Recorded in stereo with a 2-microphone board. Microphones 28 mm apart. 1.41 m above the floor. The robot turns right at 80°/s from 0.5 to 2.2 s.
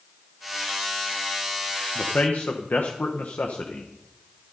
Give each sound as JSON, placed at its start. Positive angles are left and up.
{"t": 1.9, "sound": "a man speaking", "side_deg": 50, "distance_m": 1.2}